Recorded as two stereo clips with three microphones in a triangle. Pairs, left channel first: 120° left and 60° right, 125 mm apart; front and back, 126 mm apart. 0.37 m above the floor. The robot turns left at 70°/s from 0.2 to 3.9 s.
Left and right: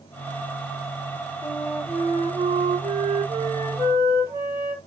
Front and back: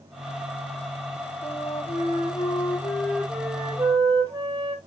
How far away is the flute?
About 2.5 m.